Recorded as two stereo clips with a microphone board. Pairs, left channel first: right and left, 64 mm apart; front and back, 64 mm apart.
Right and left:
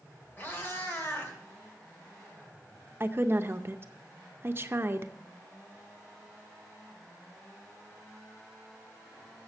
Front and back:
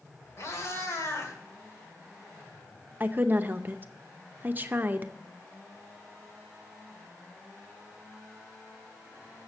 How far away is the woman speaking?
About 0.7 m.